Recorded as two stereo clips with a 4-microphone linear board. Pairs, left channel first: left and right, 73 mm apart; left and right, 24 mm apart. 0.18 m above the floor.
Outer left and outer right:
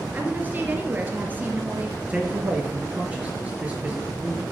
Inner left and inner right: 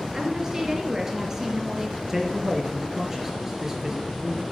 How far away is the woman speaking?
About 2.5 m.